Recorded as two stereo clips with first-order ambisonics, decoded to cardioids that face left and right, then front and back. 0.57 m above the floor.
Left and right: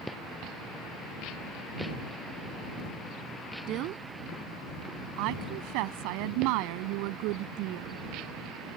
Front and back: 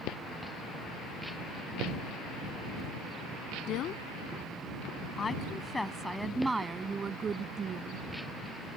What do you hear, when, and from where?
3.7 s a woman speaking: 45° right; by 8.1 s 120° right